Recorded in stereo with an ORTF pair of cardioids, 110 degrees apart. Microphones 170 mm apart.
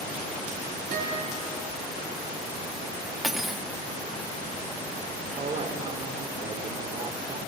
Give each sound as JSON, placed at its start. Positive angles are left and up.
{"t": 0.9, "sound": "a guitar", "azimuth_deg": -50, "distance_m": 9.5}
{"t": 3.2, "sound": "cutlery clinking", "azimuth_deg": 0, "distance_m": 1.0}
{"t": 5.4, "sound": "a woman speaking", "azimuth_deg": -35, "distance_m": 3.0}